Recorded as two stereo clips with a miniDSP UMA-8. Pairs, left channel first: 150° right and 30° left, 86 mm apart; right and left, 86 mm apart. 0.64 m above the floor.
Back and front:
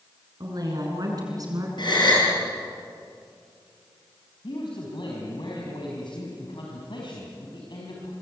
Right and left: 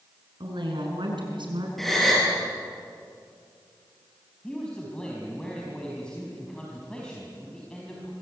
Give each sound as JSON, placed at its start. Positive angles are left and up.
{"t": 0.4, "sound": "a woman speaking", "azimuth_deg": 70, "distance_m": 7.5}
{"t": 1.8, "sound": "a gasp", "azimuth_deg": 180, "distance_m": 7.5}
{"t": 4.4, "sound": "a man speaking", "azimuth_deg": -170, "distance_m": 4.5}